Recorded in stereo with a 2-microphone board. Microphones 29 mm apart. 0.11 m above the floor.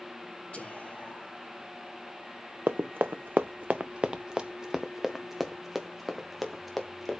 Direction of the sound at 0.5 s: 35° left (ahead or behind).